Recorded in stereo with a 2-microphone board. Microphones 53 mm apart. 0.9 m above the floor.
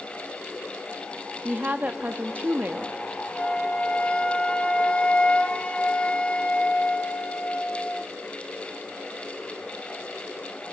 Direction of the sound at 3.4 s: 25° left (ahead or behind).